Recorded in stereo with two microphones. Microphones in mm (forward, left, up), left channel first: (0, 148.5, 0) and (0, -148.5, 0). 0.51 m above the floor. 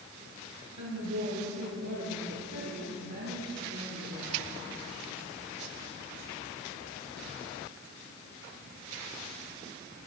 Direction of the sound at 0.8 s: 70° right (ahead or behind).